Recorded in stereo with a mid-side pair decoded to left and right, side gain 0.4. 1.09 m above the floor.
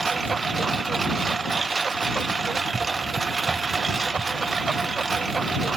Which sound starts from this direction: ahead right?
A lawn mower, at 0.0 s.